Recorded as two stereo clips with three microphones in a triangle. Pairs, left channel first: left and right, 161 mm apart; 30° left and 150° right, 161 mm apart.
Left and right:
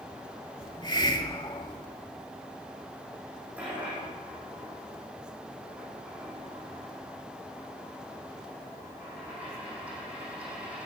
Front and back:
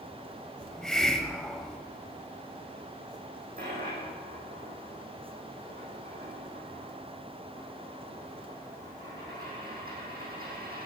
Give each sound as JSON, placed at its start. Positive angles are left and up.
{"t": 0.6, "sound": "a hiss", "azimuth_deg": 110, "distance_m": 1.2}
{"t": 3.6, "sound": "a dropped coin", "azimuth_deg": -170, "distance_m": 7.5}